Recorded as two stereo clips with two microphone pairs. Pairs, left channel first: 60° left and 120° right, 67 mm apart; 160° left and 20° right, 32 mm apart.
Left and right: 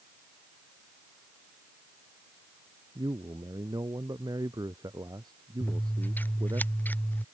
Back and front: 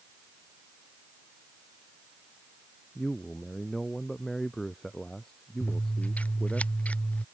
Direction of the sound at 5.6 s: 120° left.